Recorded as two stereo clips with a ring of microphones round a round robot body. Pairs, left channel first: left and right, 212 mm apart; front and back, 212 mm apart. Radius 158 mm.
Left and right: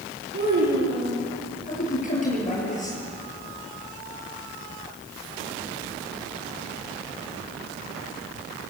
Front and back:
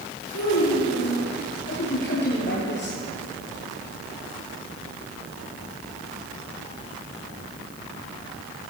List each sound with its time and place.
0.3 s a child speaking: 50° right, 9.5 m
1.7 s a man speaking: 35° left, 8.5 m